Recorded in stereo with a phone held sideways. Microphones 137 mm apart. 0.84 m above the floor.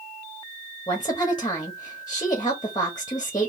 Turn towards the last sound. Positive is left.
turn(degrees=30)  # may be behind; listen again after turning